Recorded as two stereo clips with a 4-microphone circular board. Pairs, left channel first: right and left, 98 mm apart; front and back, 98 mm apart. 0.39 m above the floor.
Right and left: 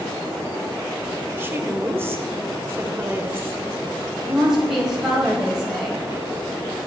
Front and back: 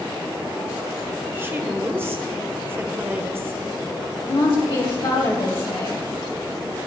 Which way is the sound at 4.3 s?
5° left.